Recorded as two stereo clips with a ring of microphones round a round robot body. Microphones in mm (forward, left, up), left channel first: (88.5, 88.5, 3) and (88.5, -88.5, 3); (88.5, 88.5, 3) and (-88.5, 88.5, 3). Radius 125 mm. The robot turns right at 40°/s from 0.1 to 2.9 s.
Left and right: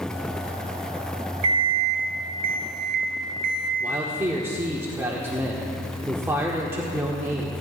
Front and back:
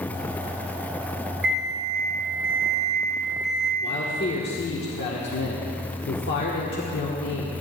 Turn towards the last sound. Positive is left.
turn(degrees=-15)